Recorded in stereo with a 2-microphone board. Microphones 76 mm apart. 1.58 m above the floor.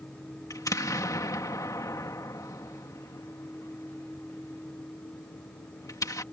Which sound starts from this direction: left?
An explosion, at 0.5 s.